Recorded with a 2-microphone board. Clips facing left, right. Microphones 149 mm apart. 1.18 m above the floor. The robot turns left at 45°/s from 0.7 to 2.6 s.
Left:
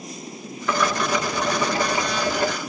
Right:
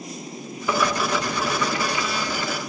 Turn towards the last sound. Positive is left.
turn(degrees=105)